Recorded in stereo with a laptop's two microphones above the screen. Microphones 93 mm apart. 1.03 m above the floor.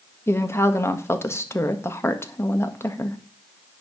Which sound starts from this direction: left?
A woman speaking, at 0.3 s.